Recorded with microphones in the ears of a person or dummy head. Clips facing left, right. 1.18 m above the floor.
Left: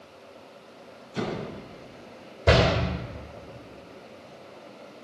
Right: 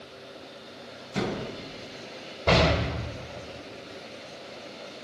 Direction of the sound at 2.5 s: 10° left (ahead or behind).